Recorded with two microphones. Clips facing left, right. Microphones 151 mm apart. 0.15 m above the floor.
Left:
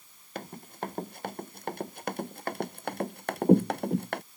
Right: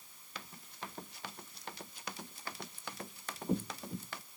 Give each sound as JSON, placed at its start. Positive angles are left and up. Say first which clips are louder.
{"t": 0.3, "sound": "running footsteps", "louder": "left 11 dB", "side_deg": 50}